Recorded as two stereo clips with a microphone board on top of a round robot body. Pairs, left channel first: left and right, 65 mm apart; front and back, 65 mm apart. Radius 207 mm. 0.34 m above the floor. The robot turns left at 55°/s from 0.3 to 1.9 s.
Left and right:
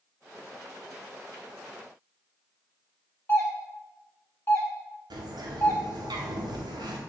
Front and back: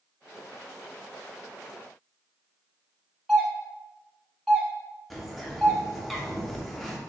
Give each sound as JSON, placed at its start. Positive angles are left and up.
{"t": 3.3, "sound": "a doorbell", "azimuth_deg": 85, "distance_m": 1.8}
{"t": 5.1, "sound": "a bird", "azimuth_deg": -90, "distance_m": 0.7}